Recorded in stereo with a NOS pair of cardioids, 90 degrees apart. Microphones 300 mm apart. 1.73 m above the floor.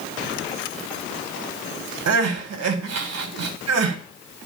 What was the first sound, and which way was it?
Crying, 60° right.